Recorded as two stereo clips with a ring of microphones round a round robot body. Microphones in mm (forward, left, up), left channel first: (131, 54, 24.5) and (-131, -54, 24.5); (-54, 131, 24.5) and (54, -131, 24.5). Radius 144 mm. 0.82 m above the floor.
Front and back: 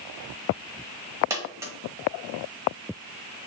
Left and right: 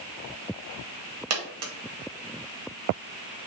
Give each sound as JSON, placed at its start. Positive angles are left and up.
{"t": 1.3, "sound": "a dropped coin", "azimuth_deg": -80, "distance_m": 0.8}